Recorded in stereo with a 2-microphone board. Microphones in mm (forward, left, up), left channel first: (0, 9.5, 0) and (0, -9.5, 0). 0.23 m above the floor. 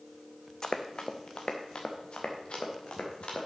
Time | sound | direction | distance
0.6 | running footsteps | 40° left (ahead or behind) | 1.0 m